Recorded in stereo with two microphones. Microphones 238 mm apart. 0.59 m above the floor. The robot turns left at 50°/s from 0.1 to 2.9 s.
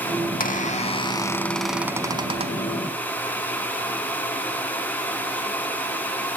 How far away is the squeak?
About 0.6 m.